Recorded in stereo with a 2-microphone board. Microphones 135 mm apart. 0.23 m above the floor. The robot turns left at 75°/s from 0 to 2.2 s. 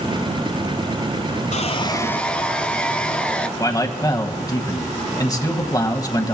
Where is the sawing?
60° left, 0.7 m; by 3.5 s 10° left, 0.7 m.